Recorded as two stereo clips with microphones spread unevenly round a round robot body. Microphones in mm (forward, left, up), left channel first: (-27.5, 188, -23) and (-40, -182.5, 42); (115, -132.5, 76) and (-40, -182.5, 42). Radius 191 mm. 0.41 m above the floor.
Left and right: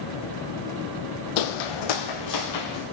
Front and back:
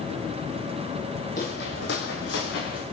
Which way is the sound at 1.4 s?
85° left.